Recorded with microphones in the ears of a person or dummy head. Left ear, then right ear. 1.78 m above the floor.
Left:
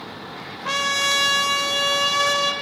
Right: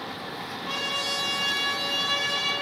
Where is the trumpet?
60° left (ahead or behind), 0.7 m.